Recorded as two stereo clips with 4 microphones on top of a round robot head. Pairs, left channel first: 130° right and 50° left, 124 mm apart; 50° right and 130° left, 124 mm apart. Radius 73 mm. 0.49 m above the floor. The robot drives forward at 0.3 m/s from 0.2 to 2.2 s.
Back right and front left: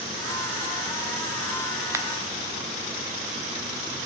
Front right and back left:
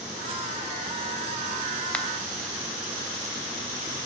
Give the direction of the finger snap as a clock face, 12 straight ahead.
11 o'clock.